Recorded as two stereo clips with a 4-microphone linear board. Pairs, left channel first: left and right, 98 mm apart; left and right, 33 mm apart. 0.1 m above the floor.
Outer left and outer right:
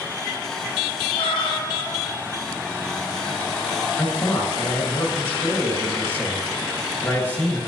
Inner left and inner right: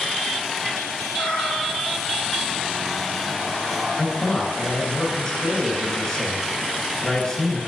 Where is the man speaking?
20° left (ahead or behind), 1.5 m.